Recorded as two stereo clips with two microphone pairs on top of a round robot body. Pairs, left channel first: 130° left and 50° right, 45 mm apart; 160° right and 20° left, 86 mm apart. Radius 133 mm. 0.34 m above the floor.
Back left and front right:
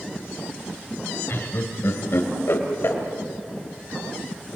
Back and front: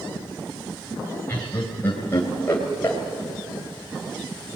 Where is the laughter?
140° left, 2.5 m.